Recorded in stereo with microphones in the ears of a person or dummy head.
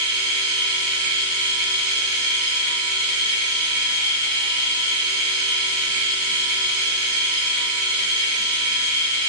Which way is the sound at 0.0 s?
35° right (ahead or behind).